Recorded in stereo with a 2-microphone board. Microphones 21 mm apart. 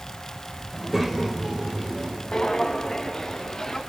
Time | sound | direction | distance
0.7 | a child speaking | 5° right (ahead or behind) | 3 m
2.3 | footsteps | 25° left (ahead or behind) | 2.0 m